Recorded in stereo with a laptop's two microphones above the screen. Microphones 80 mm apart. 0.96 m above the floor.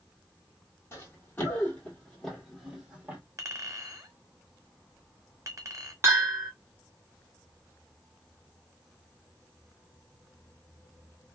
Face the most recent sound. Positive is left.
turn(degrees=-35)  # may be behind; listen again after turning